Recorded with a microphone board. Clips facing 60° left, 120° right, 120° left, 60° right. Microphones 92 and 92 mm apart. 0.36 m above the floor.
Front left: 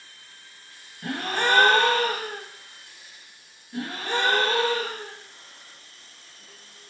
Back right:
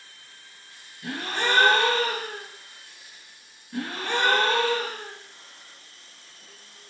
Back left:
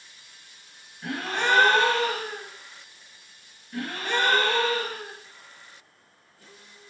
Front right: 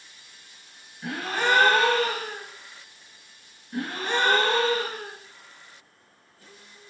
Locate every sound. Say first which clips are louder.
1.0 s a gasp: front left 2 dB, front right 1 dB; 25° left, 0.6 m
3.7 s a gasp: even, front right 1 dB; 120° right, 1.8 m